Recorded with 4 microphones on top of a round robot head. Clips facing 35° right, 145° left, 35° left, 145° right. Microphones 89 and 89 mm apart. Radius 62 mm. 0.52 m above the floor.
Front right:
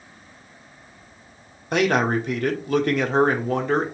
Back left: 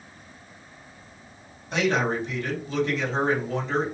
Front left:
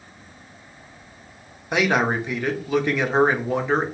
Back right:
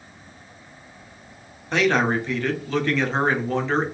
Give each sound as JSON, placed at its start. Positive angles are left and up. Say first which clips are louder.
{"t": 1.7, "sound": "a man speaking", "louder": "front right 4 dB, even", "azimuth_deg": -40, "distance_m": 1.1}